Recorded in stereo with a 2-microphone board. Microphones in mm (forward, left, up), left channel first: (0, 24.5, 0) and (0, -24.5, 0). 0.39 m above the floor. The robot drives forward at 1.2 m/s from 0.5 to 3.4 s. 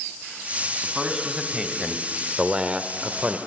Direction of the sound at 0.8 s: 5° right (ahead or behind).